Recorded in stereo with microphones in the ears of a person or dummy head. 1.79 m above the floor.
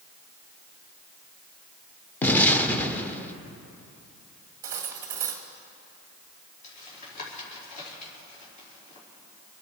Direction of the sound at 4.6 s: 15° right (ahead or behind).